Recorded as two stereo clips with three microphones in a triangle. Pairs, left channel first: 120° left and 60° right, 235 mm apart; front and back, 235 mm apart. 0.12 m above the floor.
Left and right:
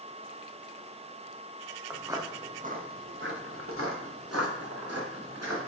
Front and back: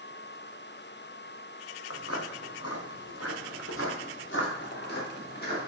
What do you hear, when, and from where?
1.9 s footsteps: 25° left, 1.1 m; by 5.7 s 55° right, 2.5 m